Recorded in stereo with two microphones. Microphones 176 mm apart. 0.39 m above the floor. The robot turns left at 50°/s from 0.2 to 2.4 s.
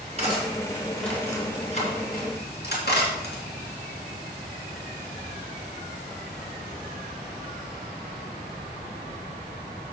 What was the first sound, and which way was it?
Cutlery clinking, 40° right (ahead or behind).